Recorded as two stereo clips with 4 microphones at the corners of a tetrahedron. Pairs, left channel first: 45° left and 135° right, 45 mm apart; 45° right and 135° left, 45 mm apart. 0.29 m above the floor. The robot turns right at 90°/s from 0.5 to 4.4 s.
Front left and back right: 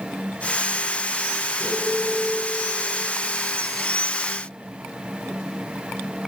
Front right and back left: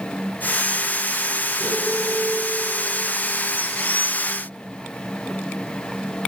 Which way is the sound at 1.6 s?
65° right.